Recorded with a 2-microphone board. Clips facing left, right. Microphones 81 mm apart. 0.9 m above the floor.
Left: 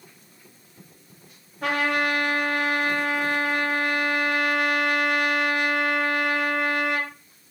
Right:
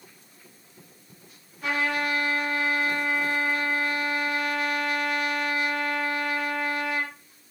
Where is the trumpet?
75° left (ahead or behind), 3.5 m.